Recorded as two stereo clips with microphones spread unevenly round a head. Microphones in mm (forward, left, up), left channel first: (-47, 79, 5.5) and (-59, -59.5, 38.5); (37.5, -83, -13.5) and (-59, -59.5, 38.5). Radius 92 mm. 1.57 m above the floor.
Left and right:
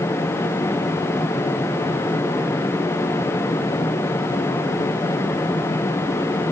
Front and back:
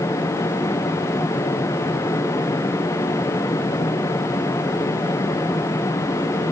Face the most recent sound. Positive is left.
No sound to turn to.